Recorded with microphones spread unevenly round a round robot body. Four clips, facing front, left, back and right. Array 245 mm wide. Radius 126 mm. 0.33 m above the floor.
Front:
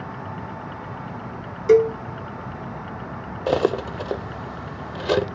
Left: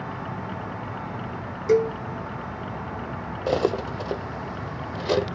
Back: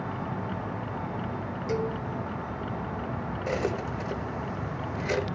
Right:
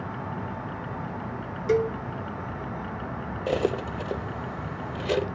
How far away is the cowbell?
About 0.6 m.